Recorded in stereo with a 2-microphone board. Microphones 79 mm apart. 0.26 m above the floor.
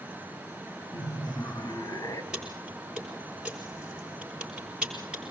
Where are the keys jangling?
10° right (ahead or behind), 4.5 m.